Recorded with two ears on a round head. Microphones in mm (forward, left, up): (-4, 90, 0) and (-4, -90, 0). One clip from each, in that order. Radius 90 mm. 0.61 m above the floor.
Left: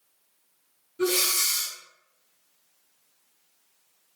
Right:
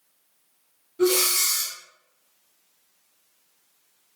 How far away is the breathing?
About 1.3 m.